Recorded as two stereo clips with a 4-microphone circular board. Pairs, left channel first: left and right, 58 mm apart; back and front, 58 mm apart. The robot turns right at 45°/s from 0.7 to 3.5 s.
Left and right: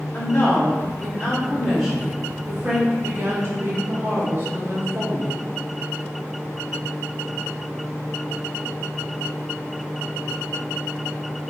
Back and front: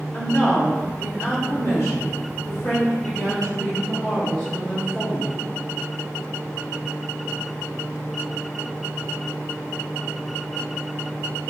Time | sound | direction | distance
0.1 | a woman speaking | 125° left | 1.7 m